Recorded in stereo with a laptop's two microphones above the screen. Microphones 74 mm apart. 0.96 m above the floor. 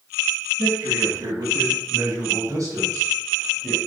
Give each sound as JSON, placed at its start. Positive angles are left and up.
{"t": 0.6, "sound": "a man speaking", "side_deg": -60, "distance_m": 7.5}